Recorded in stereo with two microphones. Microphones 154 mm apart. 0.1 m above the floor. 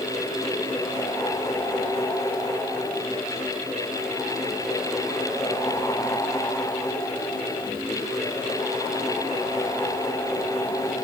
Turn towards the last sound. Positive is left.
No sound to turn to.